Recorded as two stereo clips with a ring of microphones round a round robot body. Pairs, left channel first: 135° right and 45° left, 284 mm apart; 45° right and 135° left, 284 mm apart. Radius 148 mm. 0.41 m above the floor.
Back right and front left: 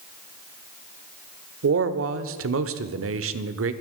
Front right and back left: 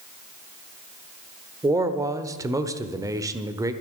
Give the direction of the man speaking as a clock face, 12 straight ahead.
10 o'clock.